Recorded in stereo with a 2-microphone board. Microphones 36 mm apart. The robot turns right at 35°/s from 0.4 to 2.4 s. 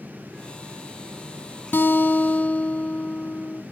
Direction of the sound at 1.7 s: 65° left (ahead or behind).